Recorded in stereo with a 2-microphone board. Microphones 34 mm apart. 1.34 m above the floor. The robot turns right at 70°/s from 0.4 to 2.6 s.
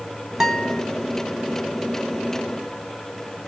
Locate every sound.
0.4 s a guitar: 10° right (ahead or behind), 1.0 m; by 0.8 s 20° left (ahead or behind), 1.0 m